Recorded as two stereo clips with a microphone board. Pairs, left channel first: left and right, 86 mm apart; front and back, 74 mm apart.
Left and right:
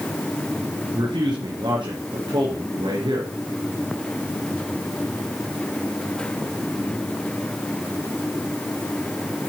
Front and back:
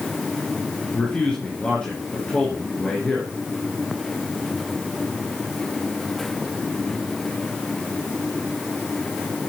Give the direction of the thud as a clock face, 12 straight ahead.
I don't hear a thud.